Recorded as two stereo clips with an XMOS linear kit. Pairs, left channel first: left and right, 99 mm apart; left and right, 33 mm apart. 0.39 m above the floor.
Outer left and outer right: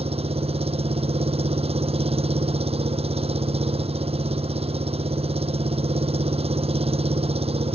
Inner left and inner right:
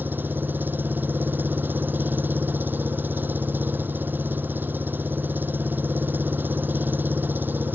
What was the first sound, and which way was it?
An engine running, 85° right.